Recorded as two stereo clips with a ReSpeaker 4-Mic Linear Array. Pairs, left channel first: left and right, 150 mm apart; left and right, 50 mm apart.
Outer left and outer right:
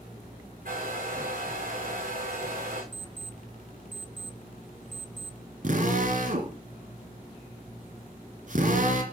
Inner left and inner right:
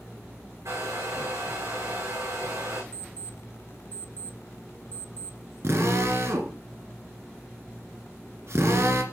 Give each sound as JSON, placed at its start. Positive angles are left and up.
{"t": 0.7, "sound": "a hair dryer", "side_deg": -70, "distance_m": 6.5}
{"t": 2.9, "sound": "an alarm clock", "side_deg": 30, "distance_m": 0.7}
{"t": 5.6, "sound": "a drill", "side_deg": -60, "distance_m": 2.0}